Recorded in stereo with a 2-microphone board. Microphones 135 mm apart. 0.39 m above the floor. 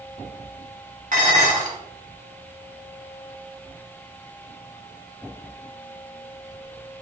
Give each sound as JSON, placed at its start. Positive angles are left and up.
{"t": 1.1, "sound": "dishes clattering", "side_deg": -70, "distance_m": 3.0}